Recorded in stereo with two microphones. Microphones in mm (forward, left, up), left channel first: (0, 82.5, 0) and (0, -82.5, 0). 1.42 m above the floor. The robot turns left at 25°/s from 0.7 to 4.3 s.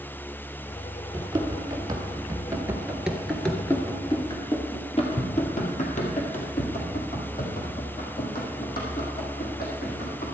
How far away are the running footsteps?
About 1.7 m.